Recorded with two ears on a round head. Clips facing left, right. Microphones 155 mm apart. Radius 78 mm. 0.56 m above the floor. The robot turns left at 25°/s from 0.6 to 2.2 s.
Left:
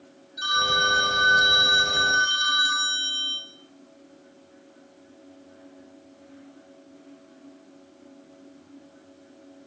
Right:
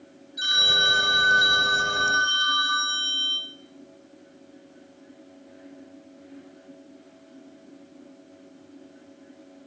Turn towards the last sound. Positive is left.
turn(degrees=165)